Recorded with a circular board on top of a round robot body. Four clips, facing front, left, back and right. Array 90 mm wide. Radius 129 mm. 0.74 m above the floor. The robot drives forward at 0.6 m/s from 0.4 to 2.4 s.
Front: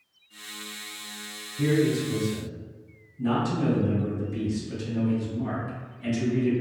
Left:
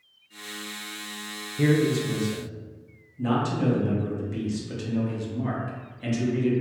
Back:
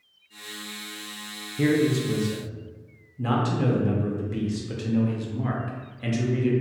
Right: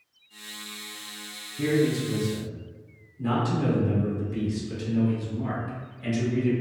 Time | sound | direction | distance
1.6 | a man speaking | 135° left | 0.6 m